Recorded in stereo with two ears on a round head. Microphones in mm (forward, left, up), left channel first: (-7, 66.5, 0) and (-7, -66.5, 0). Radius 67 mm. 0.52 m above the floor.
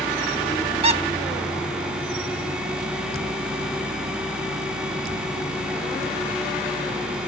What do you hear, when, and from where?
0.8 s a squeak: 40° right (ahead or behind), 1.1 m